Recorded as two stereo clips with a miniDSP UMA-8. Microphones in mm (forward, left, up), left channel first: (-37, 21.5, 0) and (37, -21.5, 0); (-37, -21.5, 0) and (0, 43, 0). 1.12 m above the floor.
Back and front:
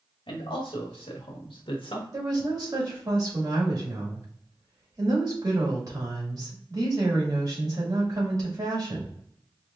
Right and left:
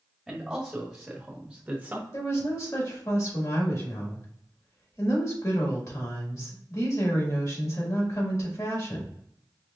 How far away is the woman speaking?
About 2 m.